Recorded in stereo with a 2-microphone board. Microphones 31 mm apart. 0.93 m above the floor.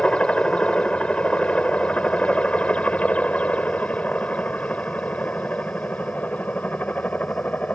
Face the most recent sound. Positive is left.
turn(degrees=55)  # may be behind; listen again after turning